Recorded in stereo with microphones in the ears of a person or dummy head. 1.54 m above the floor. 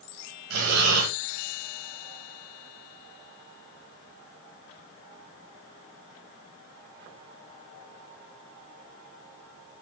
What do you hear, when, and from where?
0.5 s breathing: 75° right (ahead or behind), 4 m